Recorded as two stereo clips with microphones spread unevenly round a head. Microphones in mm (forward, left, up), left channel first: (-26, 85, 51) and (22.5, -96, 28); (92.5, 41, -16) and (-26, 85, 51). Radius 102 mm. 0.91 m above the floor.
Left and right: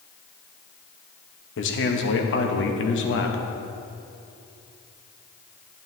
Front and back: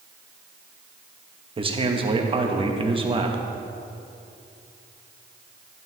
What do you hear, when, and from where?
1.6 s a man speaking: 95° left, 1.2 m